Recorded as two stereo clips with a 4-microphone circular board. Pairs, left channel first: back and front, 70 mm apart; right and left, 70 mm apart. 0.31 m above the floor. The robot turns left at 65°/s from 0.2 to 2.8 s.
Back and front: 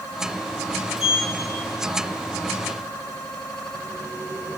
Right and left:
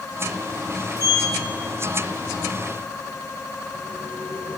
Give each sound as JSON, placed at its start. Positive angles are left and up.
{"t": 1.0, "sound": "a sliding door", "azimuth_deg": -80, "distance_m": 3.0}